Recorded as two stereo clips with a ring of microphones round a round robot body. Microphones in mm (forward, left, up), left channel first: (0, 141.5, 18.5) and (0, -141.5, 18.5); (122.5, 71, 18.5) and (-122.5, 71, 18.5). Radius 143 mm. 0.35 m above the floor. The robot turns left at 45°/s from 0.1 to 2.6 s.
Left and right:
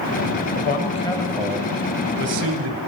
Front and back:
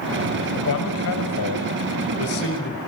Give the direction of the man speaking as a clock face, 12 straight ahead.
11 o'clock.